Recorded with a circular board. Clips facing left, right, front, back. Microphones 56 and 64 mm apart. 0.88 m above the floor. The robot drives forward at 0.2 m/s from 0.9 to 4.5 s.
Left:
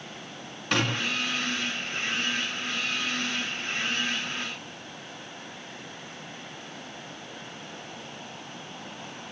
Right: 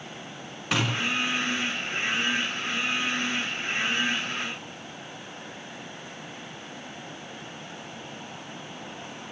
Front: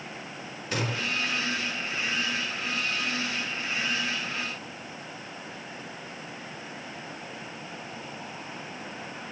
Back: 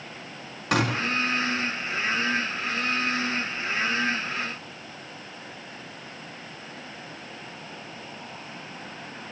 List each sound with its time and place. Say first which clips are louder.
0.7 s a gunshot: even, back 6 dB; 175° right, 2.5 m